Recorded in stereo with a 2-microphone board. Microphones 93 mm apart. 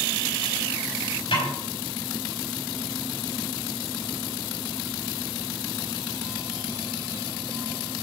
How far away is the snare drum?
About 5 m.